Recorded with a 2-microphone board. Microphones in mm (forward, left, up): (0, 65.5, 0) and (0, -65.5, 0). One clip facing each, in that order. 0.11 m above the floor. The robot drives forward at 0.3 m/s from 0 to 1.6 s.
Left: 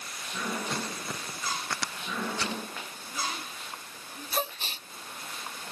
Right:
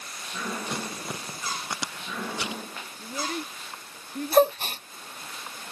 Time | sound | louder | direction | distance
0.7 | crumpling | right 1 dB | 15° right (ahead or behind) | ?
3.0 | a child speaking | right 5 dB | 55° right (ahead or behind) | ?
4.3 | a gasp | right 14 dB | 60° right (ahead or behind) | ?